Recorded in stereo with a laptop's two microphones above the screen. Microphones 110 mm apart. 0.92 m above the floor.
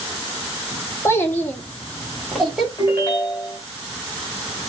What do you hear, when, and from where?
1.1 s a child speaking: 25° left (ahead or behind), 1.3 m; by 2.7 s centre (ahead or behind), 2.5 m
2.8 s a ringtone: 25° left (ahead or behind), 3 m